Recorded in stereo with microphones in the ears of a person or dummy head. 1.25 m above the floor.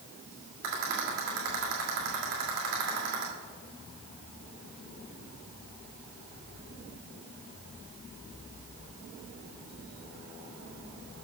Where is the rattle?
60° right (ahead or behind), 2.5 m.